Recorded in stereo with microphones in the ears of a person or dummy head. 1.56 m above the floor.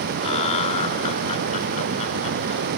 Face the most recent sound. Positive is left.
turn(degrees=30)  # may be behind; listen again after turning